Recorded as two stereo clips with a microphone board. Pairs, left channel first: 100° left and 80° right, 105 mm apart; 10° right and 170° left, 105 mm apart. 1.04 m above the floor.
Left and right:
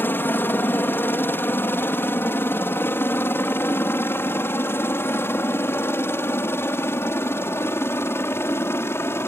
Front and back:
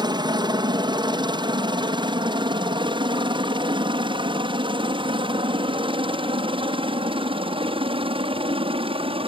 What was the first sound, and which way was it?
A helicopter, 160° left.